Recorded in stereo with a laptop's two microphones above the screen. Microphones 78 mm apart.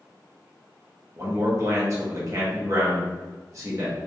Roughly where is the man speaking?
Right.